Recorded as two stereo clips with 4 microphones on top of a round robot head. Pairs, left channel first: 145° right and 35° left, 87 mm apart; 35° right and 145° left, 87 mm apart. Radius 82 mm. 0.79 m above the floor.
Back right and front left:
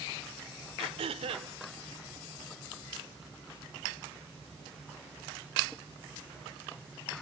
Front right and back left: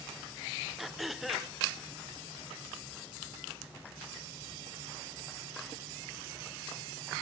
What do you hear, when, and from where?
0.8 s throat clearing: 55° left, 1.4 m